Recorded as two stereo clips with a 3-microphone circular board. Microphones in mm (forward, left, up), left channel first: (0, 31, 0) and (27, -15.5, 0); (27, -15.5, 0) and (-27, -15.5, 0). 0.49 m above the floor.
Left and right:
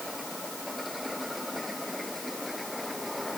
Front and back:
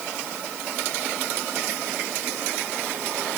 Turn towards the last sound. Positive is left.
No sound to turn to.